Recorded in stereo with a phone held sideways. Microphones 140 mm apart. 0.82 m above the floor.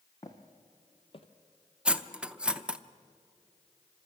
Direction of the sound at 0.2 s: 25° left (ahead or behind).